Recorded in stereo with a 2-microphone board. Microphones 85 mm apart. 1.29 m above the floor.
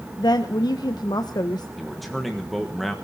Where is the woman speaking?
55° left (ahead or behind), 0.8 m.